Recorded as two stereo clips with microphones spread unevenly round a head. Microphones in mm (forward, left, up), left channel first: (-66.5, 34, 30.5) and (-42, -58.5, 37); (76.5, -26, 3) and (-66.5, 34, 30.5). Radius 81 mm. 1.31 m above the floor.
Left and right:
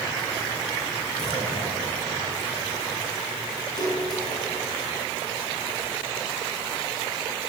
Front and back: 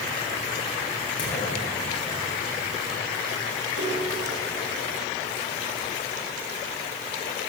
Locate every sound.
1.2 s a clunk: 40° left, 8.5 m
3.8 s a splash: 150° left, 7.5 m